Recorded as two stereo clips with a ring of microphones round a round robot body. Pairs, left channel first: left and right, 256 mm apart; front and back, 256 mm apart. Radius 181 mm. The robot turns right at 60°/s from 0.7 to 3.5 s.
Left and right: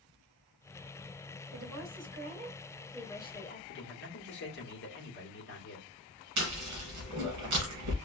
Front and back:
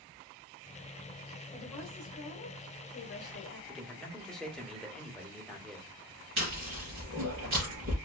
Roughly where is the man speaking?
Left.